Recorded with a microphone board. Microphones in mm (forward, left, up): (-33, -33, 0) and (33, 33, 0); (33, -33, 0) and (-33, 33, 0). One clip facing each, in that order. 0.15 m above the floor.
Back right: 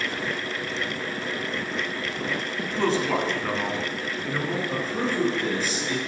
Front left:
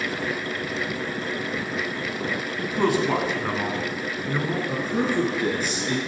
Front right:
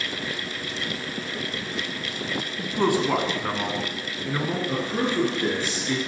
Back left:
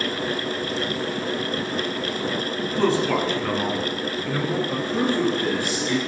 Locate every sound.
2.6 s a man speaking: 15° right, 1.1 m
4.7 s a man speaking: 15° left, 2.5 m